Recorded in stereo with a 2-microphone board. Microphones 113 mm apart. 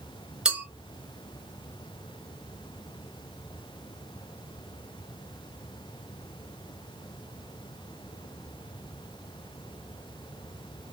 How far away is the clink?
About 1.4 m.